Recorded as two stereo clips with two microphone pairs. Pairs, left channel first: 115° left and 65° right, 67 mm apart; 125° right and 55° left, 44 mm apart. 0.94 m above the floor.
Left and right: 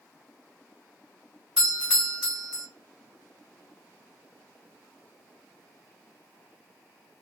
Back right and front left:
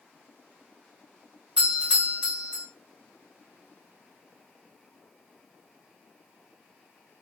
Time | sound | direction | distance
1.6 | a doorbell | straight ahead | 1.7 m